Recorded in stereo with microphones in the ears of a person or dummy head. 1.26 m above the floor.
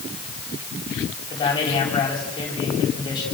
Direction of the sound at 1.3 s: 20° left (ahead or behind).